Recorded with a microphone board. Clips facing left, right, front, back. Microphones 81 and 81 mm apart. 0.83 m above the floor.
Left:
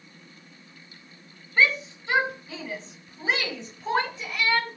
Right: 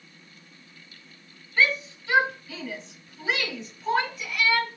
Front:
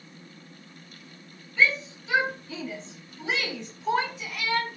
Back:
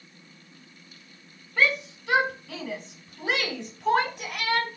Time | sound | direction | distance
1.6 | a shout | 160° left | 6 m